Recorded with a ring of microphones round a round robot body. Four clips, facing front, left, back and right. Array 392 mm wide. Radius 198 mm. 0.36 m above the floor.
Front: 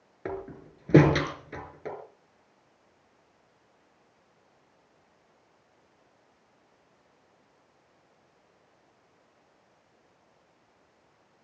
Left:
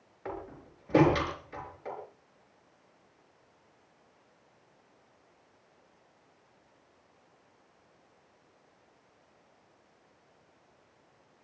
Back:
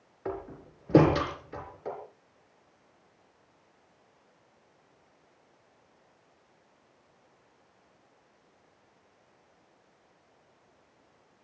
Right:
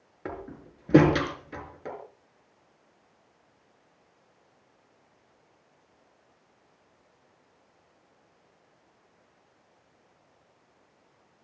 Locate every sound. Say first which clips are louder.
0.2 s a door slam: right 2 dB, front 1 dB; 40° right, 5.5 m